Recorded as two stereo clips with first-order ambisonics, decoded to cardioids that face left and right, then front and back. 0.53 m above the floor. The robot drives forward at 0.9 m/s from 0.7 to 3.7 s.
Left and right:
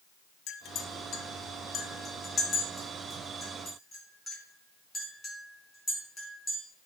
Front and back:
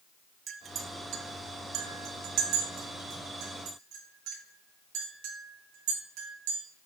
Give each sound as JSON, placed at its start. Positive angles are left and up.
{"t": 0.5, "sound": "a clink", "azimuth_deg": 120, "distance_m": 0.7}